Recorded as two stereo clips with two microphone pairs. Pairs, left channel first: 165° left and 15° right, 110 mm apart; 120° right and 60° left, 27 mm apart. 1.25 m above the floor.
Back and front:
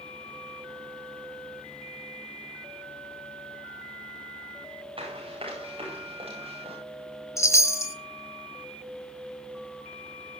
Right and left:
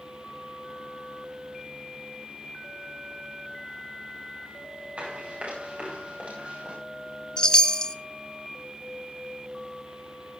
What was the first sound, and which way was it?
Running footsteps, 20° left.